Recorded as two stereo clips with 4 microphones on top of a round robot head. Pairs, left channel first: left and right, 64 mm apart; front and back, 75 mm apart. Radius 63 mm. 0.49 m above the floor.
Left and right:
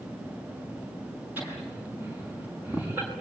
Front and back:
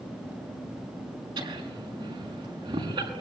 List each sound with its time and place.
1.4 s laughter: 160° right, 6.5 m